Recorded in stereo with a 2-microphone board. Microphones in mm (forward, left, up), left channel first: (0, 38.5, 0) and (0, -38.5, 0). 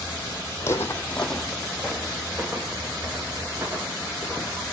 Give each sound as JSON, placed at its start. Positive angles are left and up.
{"t": 0.6, "sound": "footsteps", "side_deg": 40, "distance_m": 1.1}